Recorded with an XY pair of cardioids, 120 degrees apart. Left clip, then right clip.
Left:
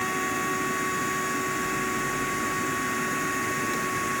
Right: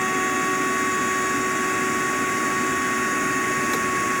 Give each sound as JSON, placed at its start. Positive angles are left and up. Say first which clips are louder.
{"t": 0.0, "sound": "a machine running", "louder": "right 5 dB", "azimuth_deg": -30}